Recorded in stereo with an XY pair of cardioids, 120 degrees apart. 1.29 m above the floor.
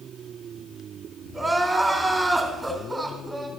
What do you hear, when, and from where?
1.3 s crying: 10° right, 3 m